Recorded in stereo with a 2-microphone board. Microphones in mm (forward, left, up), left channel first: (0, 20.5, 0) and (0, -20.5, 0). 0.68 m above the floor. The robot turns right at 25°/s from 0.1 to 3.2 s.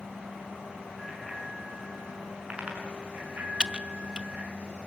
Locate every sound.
1.0 s a bicycle bell: 10° left (ahead or behind), 6 m; by 4.5 s 45° right (ahead or behind), 6 m
3.6 s typing on a keyboard: 20° right (ahead or behind), 0.6 m